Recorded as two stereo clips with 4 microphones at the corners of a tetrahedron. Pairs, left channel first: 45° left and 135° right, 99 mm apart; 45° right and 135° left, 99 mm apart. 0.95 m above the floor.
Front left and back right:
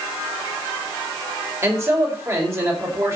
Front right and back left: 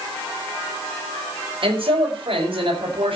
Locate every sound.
1.6 s a man speaking: 160° left, 4.5 m